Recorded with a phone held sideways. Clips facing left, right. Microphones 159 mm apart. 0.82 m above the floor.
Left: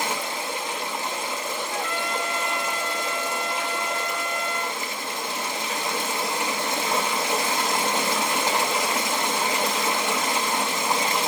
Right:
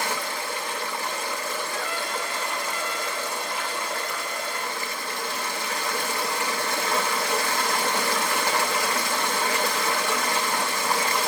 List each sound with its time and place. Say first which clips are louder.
0.0 s running water: left 1 dB; 20° left (ahead or behind), 1.0 m
1.7 s a trumpet: left 2 dB; 70° left (ahead or behind), 4 m